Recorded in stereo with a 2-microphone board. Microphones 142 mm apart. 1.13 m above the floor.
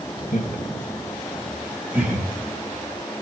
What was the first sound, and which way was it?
Laughter, 65° left (ahead or behind).